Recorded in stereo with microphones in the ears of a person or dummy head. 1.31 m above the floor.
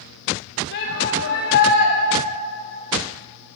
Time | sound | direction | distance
0.7 | a shout | 55° left (ahead or behind) | 1.8 m